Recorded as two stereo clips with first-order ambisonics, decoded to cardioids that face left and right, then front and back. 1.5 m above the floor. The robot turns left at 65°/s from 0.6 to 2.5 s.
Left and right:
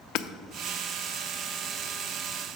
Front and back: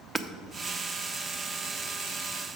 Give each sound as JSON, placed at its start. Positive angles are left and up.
{"t": 0.1, "sound": "hammering", "azimuth_deg": 95, "distance_m": 0.5}